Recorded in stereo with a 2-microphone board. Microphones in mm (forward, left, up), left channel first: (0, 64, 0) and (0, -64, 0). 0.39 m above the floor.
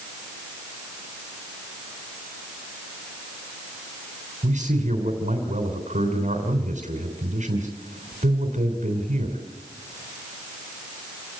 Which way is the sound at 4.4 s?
70° right (ahead or behind).